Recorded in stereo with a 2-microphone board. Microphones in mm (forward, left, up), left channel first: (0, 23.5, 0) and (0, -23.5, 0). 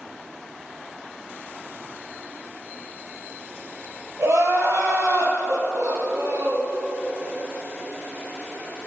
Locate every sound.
4.2 s crying: 70° right (ahead or behind), 2.5 m